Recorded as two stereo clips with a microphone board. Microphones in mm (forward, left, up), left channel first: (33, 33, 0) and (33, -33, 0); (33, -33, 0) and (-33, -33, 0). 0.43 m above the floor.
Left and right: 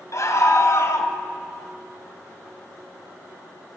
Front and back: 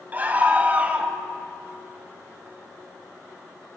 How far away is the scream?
About 3 m.